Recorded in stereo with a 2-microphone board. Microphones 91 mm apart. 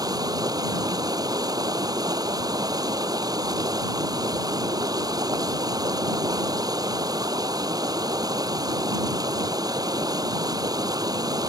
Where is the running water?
40° right (ahead or behind).